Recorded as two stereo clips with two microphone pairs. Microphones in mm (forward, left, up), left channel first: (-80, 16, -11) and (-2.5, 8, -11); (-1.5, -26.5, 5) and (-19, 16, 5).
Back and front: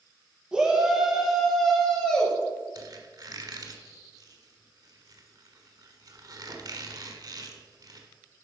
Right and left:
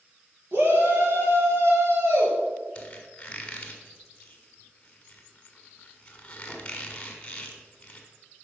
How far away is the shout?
About 4 m.